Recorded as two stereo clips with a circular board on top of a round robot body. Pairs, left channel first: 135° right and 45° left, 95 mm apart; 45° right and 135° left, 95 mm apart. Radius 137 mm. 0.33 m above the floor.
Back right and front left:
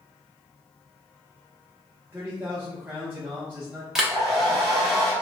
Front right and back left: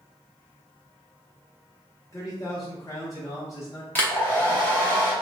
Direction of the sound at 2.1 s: 15° right.